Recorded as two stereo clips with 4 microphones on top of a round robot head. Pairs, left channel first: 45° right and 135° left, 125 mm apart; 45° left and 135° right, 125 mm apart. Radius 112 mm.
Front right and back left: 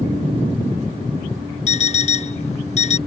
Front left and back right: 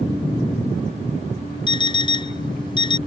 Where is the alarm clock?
10° right.